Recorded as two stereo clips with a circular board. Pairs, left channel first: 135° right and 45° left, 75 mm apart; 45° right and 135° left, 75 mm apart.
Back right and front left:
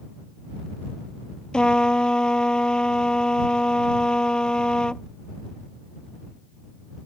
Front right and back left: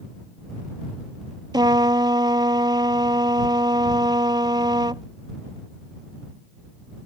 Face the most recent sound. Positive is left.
turn(degrees=145)